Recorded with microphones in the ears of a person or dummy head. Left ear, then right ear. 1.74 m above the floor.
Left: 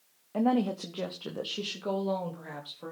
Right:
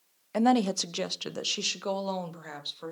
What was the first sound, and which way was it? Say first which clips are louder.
A woman speaking: right 4 dB; 70° right (ahead or behind).